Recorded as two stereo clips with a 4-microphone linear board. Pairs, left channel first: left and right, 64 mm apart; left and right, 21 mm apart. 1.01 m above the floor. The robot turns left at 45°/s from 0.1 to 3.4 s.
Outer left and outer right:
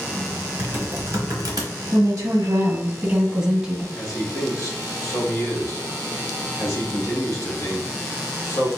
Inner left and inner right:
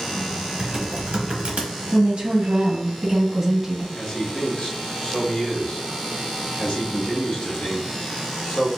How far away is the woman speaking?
About 1.5 m.